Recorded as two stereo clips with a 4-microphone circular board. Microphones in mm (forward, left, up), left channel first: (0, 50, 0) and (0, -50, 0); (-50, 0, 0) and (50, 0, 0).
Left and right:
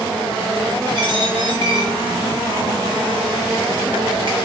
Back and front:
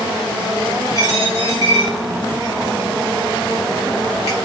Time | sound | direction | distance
0.9 | a dropped coin | 50° right | 3.5 m